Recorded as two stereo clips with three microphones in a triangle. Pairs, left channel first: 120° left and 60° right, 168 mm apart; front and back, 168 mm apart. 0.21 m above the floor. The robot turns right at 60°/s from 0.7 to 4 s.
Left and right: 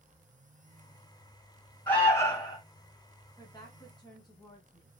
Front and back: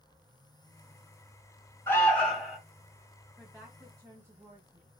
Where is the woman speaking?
95° left, 1.6 m; by 4.9 s 130° left, 1.6 m.